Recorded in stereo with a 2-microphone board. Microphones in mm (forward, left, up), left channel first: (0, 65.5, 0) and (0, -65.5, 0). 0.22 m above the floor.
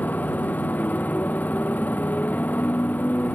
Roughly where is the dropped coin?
I don't hear a dropped coin.